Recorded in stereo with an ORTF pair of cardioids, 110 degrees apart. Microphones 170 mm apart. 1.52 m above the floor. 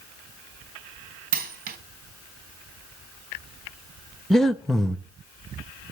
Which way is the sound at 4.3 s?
Straight ahead.